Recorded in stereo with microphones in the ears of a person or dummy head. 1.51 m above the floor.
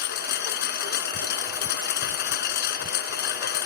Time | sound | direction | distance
0.0 | a lawn mower | 60° left (ahead or behind) | ?